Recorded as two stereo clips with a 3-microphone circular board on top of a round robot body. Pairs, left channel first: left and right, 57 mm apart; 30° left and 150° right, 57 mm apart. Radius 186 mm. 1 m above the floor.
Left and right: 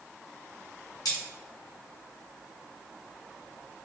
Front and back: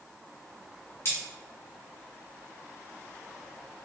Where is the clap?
I don't hear a clap.